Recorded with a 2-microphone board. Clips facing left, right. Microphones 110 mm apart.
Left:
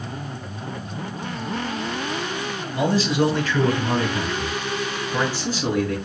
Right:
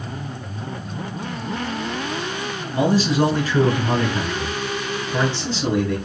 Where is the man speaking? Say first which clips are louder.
Right 2 dB; 20° right (ahead or behind), 1.3 m; by 6.0 s 10° left (ahead or behind), 3 m.